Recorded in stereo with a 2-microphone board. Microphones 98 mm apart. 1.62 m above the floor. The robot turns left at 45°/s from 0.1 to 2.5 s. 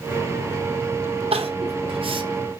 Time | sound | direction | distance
1.3 | crying | 80° right | 0.7 m